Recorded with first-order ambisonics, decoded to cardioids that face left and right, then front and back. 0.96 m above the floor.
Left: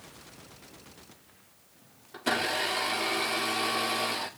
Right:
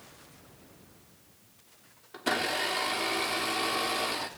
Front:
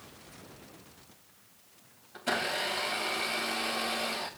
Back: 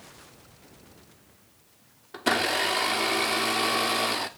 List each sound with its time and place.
2.1 s a blender: straight behind, 1.5 m